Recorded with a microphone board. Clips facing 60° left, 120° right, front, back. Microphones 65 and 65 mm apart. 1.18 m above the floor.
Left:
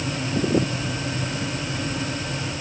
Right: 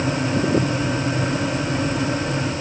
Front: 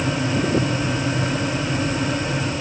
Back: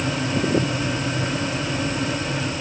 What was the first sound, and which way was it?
Only background noise.